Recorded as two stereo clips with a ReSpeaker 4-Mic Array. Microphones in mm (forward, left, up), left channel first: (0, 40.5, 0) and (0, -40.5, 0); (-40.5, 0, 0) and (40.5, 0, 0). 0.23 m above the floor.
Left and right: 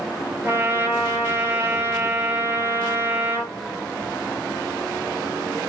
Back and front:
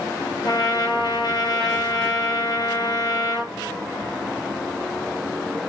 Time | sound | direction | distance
0.4 | a trumpet | 150° right | 1.5 m